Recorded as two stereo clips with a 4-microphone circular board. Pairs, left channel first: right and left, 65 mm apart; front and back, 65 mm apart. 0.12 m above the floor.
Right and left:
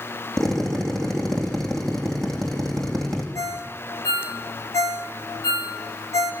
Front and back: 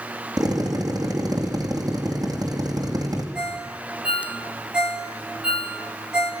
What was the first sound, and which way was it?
A drill, 175° right.